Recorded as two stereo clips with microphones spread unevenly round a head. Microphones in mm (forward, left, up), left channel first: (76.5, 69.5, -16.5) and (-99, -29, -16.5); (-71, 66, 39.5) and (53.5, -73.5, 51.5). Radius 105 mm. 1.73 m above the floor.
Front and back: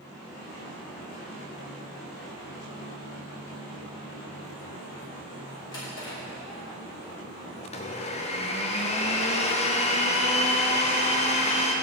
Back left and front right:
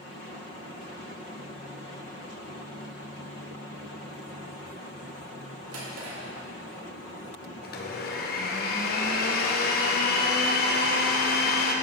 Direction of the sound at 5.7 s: 40° right.